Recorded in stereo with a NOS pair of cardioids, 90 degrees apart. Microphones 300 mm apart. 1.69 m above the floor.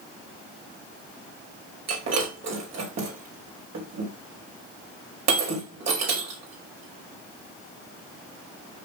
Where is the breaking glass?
60° right, 5 m.